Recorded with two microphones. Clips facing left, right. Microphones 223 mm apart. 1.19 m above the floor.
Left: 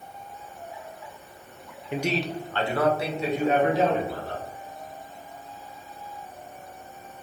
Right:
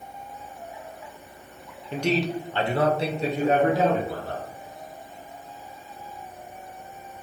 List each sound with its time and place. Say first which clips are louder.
1.9 s a man speaking: right 3 dB; 15° left (ahead or behind), 0.6 m; by 4.5 s 45° right (ahead or behind), 1.8 m